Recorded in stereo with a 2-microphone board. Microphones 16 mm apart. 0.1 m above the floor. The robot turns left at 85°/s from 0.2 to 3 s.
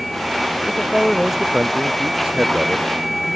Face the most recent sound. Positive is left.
turn(degrees=-10)  # may be behind; listen again after turning